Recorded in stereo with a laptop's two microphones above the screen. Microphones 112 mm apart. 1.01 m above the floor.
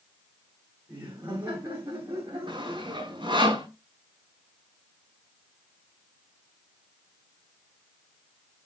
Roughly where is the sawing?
Right.